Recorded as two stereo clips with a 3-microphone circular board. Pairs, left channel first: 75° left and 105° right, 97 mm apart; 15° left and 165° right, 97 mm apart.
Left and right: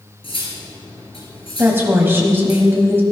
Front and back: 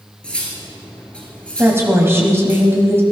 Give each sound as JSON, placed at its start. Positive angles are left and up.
{"t": 0.2, "sound": "cutlery clinking", "azimuth_deg": 95, "distance_m": 2.5}
{"t": 1.6, "sound": "a woman speaking", "azimuth_deg": -140, "distance_m": 1.6}